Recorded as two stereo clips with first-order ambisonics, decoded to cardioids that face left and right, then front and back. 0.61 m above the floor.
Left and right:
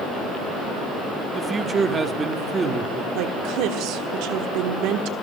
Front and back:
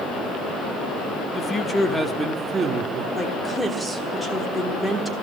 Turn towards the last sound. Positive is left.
turn(degrees=-85)